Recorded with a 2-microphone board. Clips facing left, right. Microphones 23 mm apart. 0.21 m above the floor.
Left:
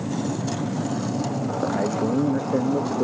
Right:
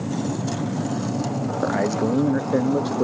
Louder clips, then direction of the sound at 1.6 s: Right 2 dB; 80° right.